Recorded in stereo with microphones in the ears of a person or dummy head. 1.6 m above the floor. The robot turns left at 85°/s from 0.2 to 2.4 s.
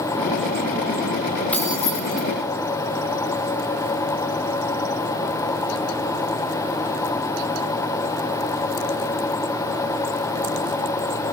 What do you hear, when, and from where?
1.5 s keys jangling: 5° left (ahead or behind), 2.0 m; by 2.2 s 60° left (ahead or behind), 2.0 m